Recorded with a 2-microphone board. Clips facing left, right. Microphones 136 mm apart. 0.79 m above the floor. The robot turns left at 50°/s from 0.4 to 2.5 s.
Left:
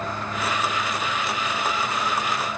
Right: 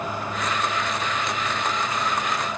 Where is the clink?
I don't hear a clink.